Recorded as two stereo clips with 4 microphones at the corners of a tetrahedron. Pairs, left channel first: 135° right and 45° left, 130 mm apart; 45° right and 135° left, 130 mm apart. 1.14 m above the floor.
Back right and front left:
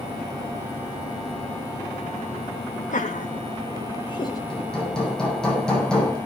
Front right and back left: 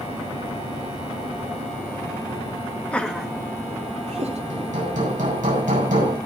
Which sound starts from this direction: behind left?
Hammering, at 4.5 s.